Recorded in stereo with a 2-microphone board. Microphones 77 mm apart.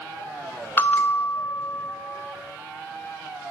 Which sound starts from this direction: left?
A bell, at 0.8 s.